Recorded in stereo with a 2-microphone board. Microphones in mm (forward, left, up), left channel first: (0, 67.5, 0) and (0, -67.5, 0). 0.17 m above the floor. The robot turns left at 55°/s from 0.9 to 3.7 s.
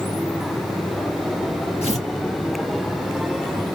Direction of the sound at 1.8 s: 45° left (ahead or behind).